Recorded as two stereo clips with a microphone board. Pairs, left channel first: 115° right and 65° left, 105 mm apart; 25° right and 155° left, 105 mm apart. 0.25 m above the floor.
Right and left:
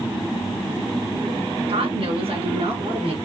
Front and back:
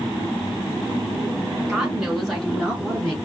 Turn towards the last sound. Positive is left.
turn(degrees=60)